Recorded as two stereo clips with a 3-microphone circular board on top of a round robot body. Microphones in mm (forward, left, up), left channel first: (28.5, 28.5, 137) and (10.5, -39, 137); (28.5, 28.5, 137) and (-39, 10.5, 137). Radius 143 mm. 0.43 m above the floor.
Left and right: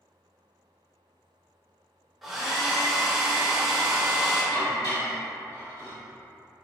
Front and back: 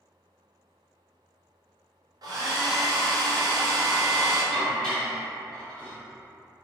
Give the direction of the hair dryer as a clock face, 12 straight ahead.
7 o'clock.